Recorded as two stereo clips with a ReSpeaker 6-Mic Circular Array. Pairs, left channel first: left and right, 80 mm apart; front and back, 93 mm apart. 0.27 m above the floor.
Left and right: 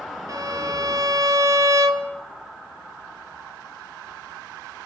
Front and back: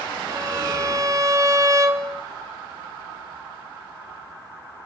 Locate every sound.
0.3 s a violin: 130° right, 1.5 m